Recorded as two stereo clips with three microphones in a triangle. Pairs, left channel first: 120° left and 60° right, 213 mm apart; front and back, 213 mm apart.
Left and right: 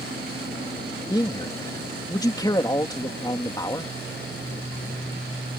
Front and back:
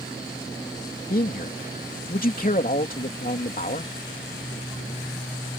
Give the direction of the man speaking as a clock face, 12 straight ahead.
10 o'clock.